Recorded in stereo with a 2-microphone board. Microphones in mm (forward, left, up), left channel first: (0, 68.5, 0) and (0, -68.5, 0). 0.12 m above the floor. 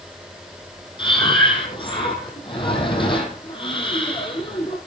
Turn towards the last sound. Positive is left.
turn(degrees=40)  # may be behind; listen again after turning